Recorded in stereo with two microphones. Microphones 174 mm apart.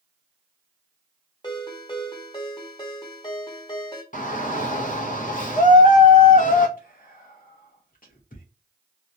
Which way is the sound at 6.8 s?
55° left (ahead or behind).